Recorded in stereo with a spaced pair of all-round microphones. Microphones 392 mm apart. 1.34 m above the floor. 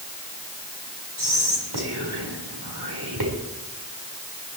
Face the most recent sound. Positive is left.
turn(degrees=-75)  # may be behind; listen again after turning